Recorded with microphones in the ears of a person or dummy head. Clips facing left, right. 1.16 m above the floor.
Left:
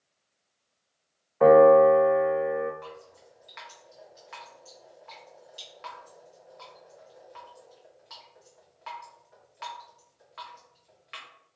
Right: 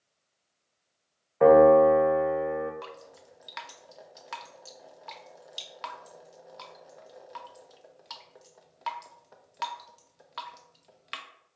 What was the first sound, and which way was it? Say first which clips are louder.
A piano: left 1 dB; centre (ahead or behind).